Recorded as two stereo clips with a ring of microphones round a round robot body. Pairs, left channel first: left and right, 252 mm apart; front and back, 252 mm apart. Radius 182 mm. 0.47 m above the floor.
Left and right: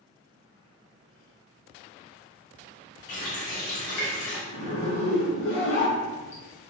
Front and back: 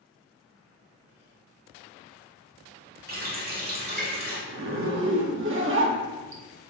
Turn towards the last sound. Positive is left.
turn(degrees=140)